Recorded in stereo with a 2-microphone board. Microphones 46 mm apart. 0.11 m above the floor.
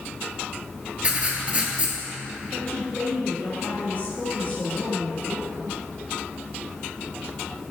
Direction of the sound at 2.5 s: 35° left (ahead or behind).